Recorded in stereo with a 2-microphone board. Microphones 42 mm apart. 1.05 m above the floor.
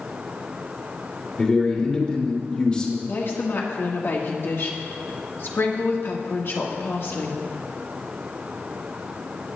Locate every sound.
1.4 s a man speaking: 25° left (ahead or behind), 2.5 m
3.1 s a woman speaking: 65° left (ahead or behind), 1.7 m